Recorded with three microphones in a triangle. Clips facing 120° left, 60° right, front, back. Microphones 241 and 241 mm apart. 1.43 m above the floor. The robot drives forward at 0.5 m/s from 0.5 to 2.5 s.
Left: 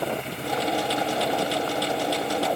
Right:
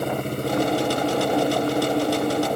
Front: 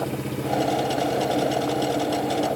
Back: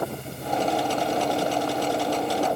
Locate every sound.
0.0 s an engine running: 15° right